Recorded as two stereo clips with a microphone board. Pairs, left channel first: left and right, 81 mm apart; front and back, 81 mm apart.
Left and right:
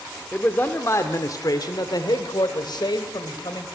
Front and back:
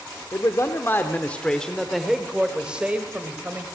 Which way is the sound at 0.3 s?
25° left.